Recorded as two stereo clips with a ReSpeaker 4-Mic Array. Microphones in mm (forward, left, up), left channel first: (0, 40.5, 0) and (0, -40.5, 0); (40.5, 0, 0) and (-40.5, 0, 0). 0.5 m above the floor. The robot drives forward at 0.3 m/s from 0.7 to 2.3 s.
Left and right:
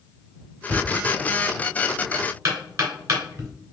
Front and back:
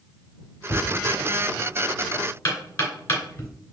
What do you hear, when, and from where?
0.7 s knocking: 50° right, 2.5 m; by 3.5 s 60° right, 2 m